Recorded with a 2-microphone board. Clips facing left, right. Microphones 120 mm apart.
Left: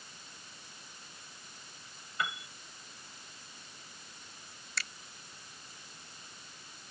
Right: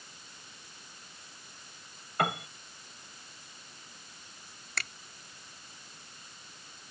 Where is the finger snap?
55° right (ahead or behind).